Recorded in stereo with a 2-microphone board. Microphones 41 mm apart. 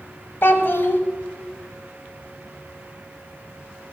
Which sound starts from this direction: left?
A child speaking, at 0.4 s.